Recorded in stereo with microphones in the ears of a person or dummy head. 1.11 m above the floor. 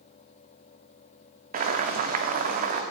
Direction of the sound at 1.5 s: 45° right (ahead or behind).